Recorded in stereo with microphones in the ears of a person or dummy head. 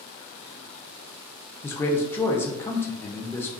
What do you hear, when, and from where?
1.6 s a man speaking: 15° left (ahead or behind), 0.6 m